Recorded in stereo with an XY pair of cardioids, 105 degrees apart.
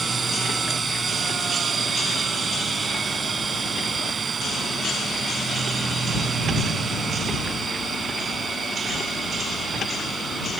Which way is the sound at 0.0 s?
35° right.